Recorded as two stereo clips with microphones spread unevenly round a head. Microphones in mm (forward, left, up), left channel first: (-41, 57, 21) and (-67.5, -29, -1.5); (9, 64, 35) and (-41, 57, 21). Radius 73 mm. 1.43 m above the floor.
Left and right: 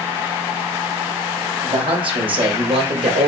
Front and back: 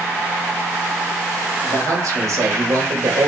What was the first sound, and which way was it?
A man speaking, 130° right.